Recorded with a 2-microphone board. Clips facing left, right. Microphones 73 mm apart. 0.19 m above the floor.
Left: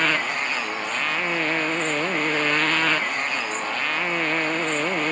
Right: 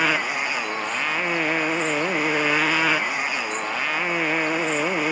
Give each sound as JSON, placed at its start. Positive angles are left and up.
{"t": 0.0, "sound": "a motorcycle", "side_deg": -5}